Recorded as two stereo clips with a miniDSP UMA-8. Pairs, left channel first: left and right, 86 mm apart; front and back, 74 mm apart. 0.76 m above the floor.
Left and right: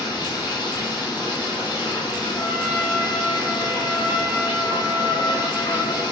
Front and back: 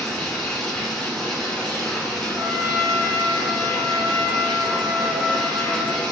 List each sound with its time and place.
0.0 s running water: 80° left, 1.4 m
2.3 s a trumpet: 110° left, 1.1 m